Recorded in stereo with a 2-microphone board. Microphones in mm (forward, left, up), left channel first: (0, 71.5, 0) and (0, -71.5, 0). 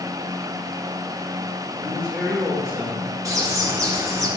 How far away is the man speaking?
About 1.8 m.